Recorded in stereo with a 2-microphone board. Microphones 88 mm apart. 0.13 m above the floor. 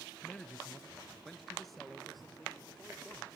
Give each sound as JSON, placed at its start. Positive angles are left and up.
{"t": 0.2, "sound": "a man speaking", "side_deg": 10, "distance_m": 1.3}